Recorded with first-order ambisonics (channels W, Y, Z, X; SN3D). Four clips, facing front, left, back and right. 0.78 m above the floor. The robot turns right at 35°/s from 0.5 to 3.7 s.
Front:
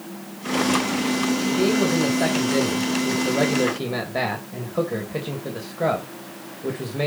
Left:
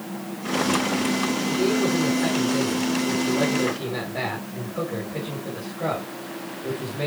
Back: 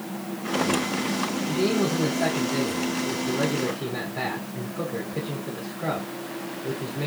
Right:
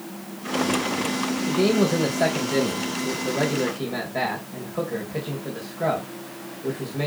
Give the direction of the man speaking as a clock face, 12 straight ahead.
3 o'clock.